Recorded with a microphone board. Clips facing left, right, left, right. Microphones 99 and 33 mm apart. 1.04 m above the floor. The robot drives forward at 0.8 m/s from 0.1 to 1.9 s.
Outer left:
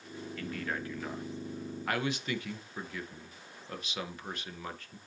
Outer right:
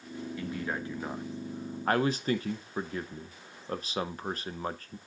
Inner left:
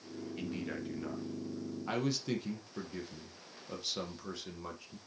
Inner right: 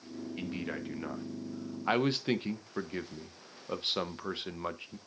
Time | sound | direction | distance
0.4 | a man speaking | 20° right (ahead or behind) | 1.8 m